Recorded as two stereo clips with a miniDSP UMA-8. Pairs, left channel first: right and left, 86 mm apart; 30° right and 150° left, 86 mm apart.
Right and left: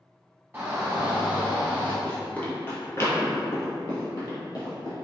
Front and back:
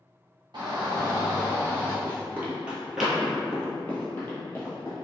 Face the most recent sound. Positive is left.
turn(degrees=-75)